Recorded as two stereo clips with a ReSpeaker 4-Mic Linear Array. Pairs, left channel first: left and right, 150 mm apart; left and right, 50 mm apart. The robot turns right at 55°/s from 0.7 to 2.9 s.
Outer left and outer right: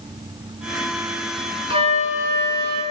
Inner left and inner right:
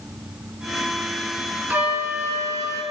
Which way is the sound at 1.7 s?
145° right.